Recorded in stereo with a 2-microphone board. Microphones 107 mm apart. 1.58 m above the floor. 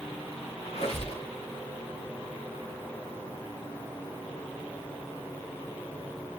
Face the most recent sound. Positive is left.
turn(degrees=75)  # may be behind; listen again after turning